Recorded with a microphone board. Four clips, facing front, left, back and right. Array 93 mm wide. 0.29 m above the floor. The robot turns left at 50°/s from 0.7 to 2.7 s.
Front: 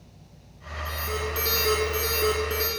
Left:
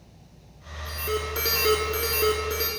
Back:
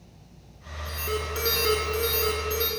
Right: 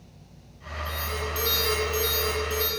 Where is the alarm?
150° left, 3.5 m; by 2.7 s 60° left, 3.5 m.